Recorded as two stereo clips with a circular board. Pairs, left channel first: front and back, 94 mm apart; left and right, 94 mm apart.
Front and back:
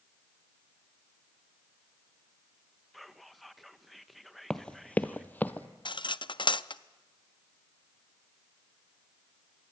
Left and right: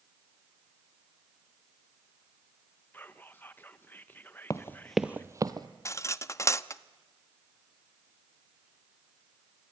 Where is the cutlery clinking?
30° left, 0.5 m.